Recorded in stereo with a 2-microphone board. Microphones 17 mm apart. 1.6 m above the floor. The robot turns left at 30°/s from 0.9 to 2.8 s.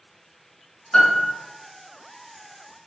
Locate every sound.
0.9 s a piano: 65° left (ahead or behind), 1.6 m; by 1.3 s 55° left (ahead or behind), 1.6 m